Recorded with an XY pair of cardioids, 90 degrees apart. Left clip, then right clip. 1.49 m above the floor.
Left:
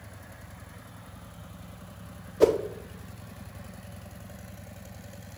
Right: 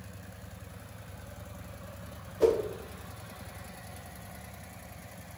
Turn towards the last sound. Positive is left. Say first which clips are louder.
# left 3 dB
turn(degrees=60)